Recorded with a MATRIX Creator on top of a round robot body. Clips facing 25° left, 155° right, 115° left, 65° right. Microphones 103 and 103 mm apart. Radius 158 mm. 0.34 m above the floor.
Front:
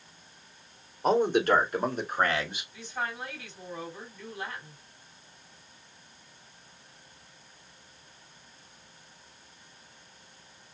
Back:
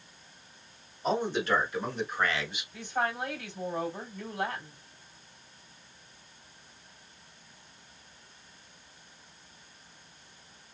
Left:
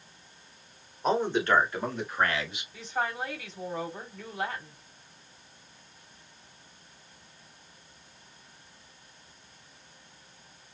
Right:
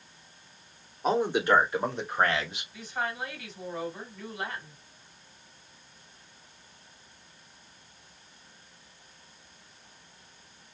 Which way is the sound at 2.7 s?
170° left.